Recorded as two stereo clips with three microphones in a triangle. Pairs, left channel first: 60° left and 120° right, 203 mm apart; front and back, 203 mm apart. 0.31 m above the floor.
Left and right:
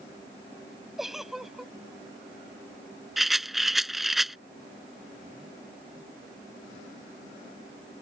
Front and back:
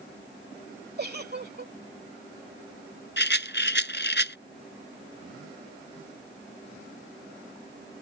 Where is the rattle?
30° right.